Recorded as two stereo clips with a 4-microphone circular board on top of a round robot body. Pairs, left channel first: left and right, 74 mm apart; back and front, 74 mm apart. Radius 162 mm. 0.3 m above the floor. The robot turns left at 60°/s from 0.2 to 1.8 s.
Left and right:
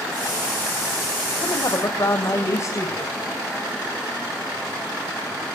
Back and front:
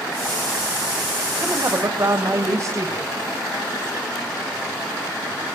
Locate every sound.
1.4 s a woman speaking: 70° left, 2.5 m; by 3.1 s 45° left, 2.5 m